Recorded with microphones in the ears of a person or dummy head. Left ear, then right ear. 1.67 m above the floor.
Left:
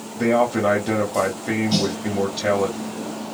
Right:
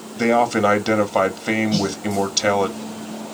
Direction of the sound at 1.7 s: 35° left (ahead or behind).